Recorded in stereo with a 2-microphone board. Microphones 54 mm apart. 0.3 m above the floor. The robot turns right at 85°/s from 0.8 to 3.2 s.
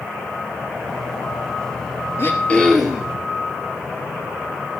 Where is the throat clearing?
130° left, 2.5 m; by 3.1 s 155° right, 2.5 m.